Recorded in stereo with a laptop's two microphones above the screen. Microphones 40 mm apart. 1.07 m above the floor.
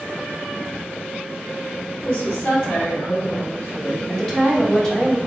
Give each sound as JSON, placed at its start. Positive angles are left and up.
{"t": 2.0, "sound": "a woman speaking", "side_deg": 55, "distance_m": 1.1}
{"t": 4.1, "sound": "a woman speaking", "side_deg": 15, "distance_m": 0.7}